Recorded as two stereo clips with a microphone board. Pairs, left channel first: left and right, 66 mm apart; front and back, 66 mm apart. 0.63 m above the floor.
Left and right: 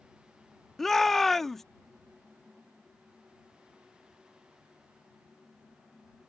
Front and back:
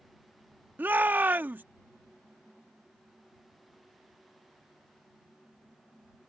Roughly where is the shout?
Behind.